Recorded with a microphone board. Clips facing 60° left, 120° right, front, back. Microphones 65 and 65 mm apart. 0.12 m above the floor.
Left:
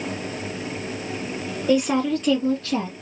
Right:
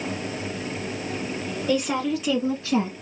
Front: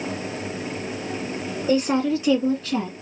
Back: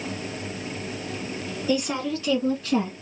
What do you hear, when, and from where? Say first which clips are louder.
1.7 s a woman speaking: left 4 dB, front 5 dB; 20° right, 1.8 m; by 2.9 s 120° right, 1.5 m